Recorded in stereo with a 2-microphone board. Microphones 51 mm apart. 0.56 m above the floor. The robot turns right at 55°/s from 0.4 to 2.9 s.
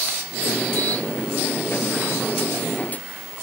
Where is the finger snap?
No finger snap in this recording.